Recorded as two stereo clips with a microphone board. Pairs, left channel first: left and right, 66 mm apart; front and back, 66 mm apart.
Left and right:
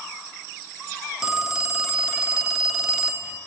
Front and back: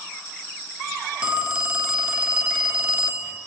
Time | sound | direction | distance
1.2 | a phone ringing | 150° right | 0.7 m